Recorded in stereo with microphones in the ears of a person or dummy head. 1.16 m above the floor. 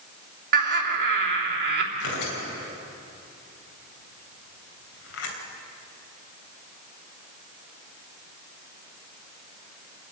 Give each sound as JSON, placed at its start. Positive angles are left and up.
{"t": 0.5, "sound": "laughter", "side_deg": -55, "distance_m": 3.0}
{"t": 1.9, "sound": "tearing paper", "side_deg": 75, "distance_m": 3.0}